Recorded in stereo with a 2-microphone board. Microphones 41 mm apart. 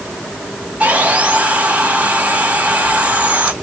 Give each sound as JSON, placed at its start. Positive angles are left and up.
{"t": 0.8, "sound": "sawing", "side_deg": -30, "distance_m": 2.0}